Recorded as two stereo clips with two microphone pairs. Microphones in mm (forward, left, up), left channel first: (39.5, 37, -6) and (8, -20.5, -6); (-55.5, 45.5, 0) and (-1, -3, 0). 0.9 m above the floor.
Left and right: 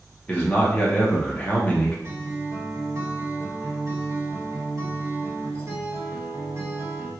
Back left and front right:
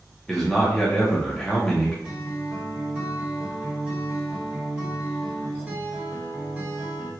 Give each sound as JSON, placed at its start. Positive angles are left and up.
{"t": 0.3, "sound": "a man speaking", "azimuth_deg": 75, "distance_m": 0.8}
{"t": 2.0, "sound": "a guitar", "azimuth_deg": -110, "distance_m": 1.3}